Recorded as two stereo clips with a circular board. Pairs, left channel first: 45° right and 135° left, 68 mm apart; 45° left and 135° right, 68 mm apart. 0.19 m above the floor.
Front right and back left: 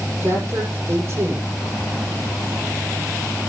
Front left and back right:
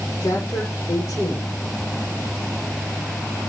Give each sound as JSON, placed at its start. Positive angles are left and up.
{"t": 0.2, "sound": "a man speaking", "azimuth_deg": 85, "distance_m": 8.5}